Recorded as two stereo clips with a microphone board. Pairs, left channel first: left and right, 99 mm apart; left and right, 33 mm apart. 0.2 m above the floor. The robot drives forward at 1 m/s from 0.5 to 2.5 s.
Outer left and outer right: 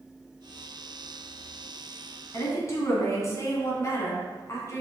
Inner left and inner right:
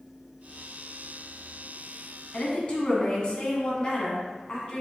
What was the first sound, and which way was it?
A woman speaking, 35° left (ahead or behind).